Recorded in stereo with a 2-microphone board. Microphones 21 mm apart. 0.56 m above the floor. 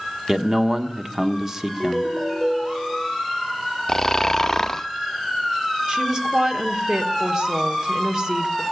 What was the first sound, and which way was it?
A man speaking, 25° right (ahead or behind).